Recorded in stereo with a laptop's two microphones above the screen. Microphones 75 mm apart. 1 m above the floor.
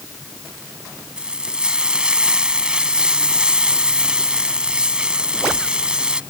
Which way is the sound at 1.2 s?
15° right (ahead or behind).